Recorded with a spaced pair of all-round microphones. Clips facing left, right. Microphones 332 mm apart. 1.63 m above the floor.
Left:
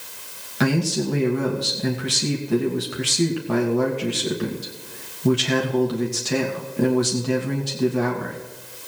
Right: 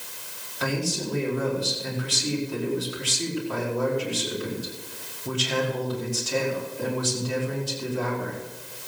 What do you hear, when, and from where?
0.6 s a man speaking: 80° left, 2 m